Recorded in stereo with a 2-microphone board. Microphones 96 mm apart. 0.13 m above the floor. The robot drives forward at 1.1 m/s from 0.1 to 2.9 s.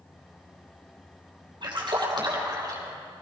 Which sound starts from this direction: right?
A splash, at 1.6 s.